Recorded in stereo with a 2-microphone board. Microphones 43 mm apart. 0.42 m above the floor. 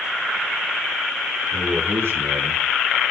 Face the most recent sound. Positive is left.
turn(degrees=-70)  # may be behind; listen again after turning